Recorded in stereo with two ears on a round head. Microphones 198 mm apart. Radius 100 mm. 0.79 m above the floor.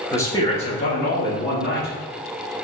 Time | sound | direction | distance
0.1 | a man speaking | 10° left (ahead or behind) | 0.7 m